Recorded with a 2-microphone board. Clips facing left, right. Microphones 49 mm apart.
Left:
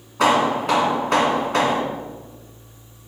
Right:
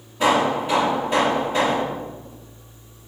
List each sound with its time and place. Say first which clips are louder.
0.2 s hammering: left 1 dB; 85° left, 1.4 m